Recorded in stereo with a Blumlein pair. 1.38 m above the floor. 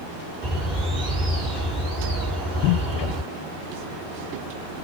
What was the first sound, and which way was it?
A bird, 5° right.